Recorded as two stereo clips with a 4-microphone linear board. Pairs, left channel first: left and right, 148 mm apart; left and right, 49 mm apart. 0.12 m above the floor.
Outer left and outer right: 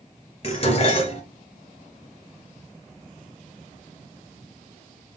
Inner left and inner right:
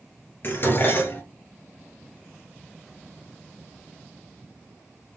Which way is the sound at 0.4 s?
40° left (ahead or behind).